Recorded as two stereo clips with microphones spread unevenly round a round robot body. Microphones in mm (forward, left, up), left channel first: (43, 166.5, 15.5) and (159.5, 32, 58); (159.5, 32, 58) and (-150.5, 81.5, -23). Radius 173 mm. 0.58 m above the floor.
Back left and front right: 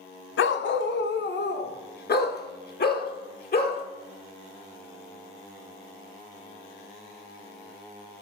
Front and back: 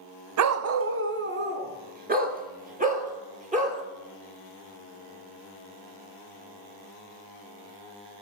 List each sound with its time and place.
0.4 s a dog barking: 135° left, 0.8 m; by 3.8 s 105° left, 3.5 m